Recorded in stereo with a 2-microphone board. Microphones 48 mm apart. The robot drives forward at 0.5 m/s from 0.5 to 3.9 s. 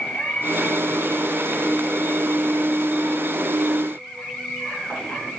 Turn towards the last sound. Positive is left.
turn(degrees=15)  # may be behind; listen again after turning